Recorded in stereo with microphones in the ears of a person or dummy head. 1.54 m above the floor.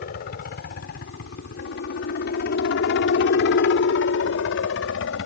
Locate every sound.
0.0 s a helicopter: 50° left (ahead or behind); by 5.3 s 65° left (ahead or behind)